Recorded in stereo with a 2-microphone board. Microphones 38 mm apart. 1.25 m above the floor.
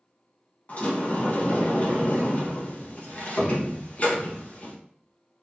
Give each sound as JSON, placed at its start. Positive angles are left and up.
{"t": 0.7, "sound": "a sliding door", "side_deg": 40, "distance_m": 1.1}